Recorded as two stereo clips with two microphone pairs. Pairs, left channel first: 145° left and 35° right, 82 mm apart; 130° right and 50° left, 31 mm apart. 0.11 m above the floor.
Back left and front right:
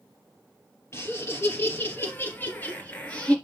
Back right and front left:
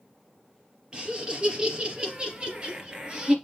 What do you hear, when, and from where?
0.9 s laughter: 95° left, 3 m; by 3.4 s 80° left, 2 m